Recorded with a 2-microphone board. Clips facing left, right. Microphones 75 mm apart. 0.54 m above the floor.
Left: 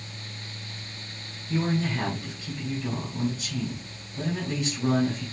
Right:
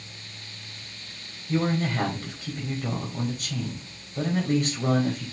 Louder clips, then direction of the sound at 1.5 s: Right 2 dB; 50° right (ahead or behind).